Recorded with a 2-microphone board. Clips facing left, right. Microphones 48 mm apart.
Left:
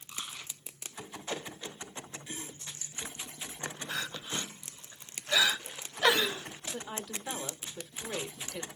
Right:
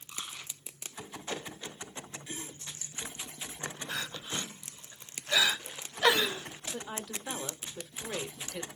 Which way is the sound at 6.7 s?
5° right (ahead or behind).